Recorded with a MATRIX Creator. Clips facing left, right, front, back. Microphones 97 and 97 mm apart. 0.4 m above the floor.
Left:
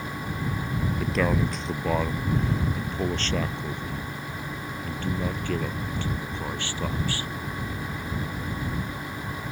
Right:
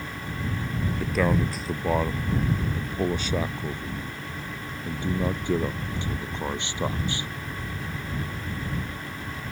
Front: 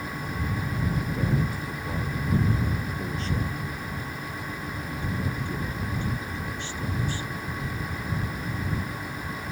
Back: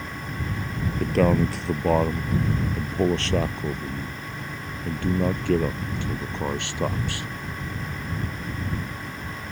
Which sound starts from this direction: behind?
A man speaking, at 1.0 s.